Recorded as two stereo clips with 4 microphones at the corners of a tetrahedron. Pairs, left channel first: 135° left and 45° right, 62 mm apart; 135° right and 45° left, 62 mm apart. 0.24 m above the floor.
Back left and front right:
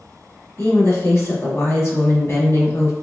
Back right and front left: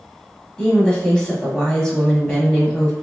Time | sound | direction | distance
0.6 | a woman speaking | 155° left | 1.3 m